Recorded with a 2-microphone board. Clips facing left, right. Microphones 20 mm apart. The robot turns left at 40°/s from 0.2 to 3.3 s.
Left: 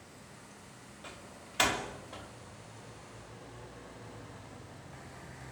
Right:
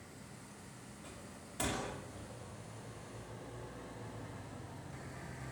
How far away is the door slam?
About 3 m.